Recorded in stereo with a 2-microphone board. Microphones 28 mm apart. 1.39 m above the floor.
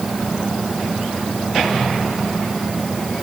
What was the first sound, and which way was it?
Only background noise.